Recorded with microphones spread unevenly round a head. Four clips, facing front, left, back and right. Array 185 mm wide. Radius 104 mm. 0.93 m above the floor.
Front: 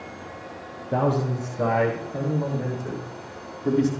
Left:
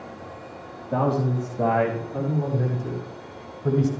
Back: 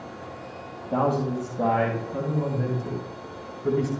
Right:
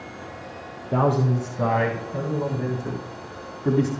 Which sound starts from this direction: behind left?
A man speaking, at 0.9 s.